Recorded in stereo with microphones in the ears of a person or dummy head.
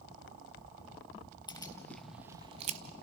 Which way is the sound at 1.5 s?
20° left (ahead or behind).